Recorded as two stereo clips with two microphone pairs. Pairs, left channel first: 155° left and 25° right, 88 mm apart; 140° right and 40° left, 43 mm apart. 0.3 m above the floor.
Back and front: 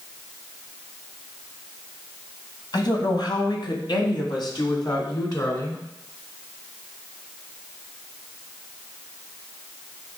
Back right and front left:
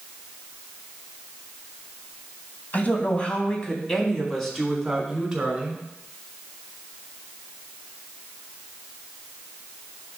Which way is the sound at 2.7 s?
Straight behind.